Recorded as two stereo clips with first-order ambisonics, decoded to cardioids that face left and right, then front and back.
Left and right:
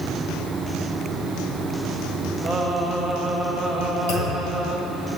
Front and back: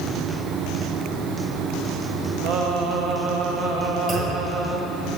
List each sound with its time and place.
2.4 s singing: 175° left, 1.0 m
4.1 s a clunk: 105° left, 1.9 m